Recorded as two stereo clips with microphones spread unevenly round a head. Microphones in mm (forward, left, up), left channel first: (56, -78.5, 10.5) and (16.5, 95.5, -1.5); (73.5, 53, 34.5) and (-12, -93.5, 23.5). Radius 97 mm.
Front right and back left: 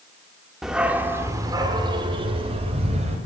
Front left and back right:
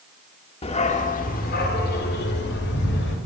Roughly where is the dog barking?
Ahead.